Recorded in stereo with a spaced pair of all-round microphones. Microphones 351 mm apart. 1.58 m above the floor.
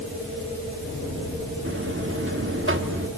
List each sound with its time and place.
1.6 s a buzzer: 35° right (ahead or behind), 1.4 m